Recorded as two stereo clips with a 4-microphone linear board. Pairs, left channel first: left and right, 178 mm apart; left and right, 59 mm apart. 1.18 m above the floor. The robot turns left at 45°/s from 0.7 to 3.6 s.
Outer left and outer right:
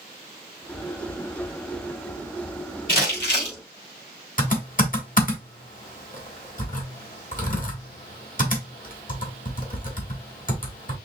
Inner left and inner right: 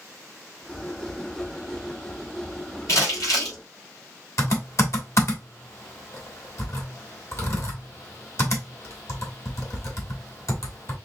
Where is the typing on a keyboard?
50° left (ahead or behind), 1.4 m.